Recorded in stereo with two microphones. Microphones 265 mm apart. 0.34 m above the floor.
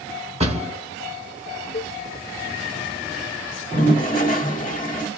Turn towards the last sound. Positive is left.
turn(degrees=30)  # may be behind; listen again after turning